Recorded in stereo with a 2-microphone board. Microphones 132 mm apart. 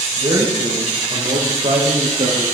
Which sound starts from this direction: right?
A man speaking, at 0.2 s.